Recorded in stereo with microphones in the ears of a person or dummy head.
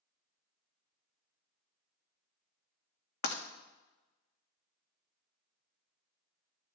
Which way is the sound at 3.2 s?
65° left (ahead or behind).